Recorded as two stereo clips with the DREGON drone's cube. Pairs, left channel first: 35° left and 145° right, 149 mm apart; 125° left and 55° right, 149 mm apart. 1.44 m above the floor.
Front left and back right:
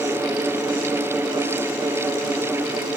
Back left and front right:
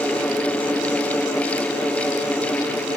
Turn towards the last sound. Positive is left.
No sound to turn to.